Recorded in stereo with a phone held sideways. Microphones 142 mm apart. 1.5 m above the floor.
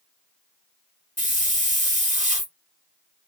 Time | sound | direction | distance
1.2 | a hiss | 55° right (ahead or behind) | 1.5 m